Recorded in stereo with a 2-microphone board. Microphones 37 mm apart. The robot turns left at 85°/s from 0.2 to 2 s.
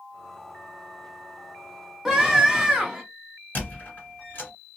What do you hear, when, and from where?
2.0 s a scream: 10° right (ahead or behind), 1.3 m
3.5 s a squeak: 45° left (ahead or behind), 1.7 m